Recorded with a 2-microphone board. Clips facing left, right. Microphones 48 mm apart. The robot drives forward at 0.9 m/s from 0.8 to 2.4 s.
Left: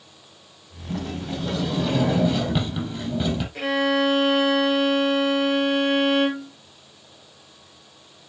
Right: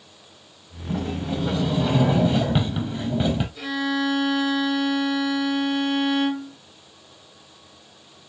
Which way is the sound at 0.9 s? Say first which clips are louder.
Right 3 dB; 10° right (ahead or behind).